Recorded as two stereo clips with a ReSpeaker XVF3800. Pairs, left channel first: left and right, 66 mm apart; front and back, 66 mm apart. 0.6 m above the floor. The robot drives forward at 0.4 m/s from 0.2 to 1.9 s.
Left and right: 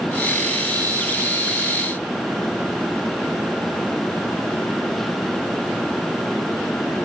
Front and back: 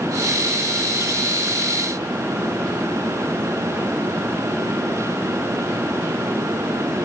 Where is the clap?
I don't hear a clap.